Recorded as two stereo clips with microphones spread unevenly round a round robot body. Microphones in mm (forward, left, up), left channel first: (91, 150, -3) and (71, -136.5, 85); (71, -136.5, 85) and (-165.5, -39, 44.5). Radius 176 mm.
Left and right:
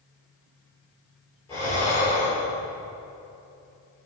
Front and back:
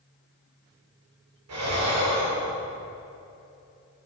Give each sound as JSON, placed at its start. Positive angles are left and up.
{"t": 1.5, "sound": "breathing", "azimuth_deg": 165, "distance_m": 3.0}